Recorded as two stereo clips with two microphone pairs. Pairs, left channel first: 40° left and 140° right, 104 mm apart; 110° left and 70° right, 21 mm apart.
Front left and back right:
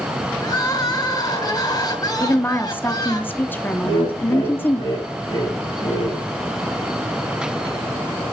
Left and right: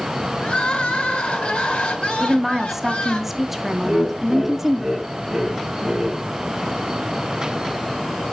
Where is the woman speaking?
15° right, 0.6 m.